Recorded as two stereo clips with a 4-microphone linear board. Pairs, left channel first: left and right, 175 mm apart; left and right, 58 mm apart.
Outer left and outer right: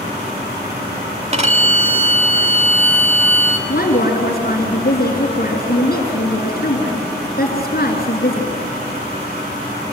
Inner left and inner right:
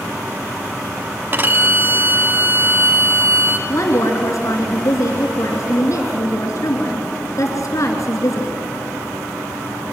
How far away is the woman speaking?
About 3 m.